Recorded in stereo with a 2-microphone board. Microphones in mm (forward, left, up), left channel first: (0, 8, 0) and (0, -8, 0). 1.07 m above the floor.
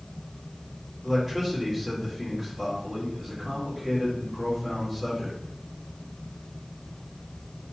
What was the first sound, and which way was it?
A man speaking, centre (ahead or behind).